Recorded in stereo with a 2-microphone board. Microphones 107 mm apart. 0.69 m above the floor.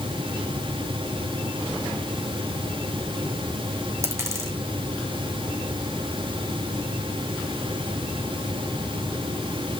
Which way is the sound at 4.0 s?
25° right (ahead or behind).